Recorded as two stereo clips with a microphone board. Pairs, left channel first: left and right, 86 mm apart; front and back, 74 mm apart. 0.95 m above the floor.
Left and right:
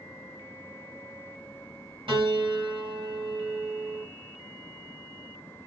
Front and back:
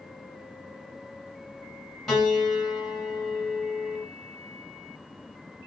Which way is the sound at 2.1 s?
90° right.